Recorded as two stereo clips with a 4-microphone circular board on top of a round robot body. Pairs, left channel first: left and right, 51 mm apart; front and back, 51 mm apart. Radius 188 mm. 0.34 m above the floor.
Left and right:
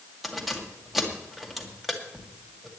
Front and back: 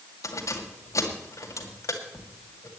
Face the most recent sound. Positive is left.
turn(degrees=0)